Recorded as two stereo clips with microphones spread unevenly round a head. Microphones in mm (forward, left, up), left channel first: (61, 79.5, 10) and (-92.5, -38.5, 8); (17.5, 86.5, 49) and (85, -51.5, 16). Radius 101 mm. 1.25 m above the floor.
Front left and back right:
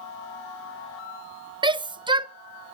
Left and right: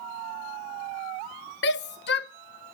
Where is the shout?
150° left, 0.6 m.